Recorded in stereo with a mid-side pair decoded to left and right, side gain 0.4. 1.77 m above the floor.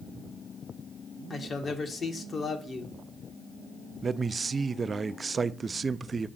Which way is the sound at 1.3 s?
50° left.